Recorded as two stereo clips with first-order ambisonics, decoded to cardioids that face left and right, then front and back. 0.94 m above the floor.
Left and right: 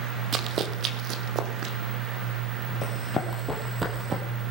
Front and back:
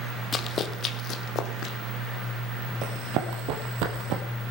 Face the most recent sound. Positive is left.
turn(degrees=-150)